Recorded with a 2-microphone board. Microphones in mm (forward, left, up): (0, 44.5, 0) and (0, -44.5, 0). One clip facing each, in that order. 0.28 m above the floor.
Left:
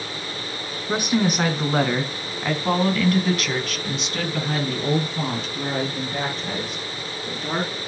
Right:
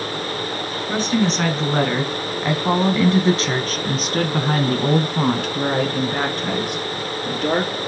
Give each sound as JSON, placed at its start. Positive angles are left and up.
{"t": 0.9, "sound": "a woman speaking", "side_deg": 15, "distance_m": 3.0}